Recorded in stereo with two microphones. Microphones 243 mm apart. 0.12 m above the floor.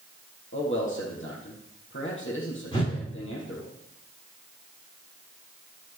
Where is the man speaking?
55° left (ahead or behind), 4 m.